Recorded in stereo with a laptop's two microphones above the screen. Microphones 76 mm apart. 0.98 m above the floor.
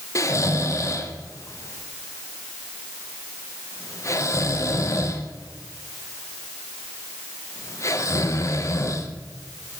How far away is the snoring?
About 0.8 m.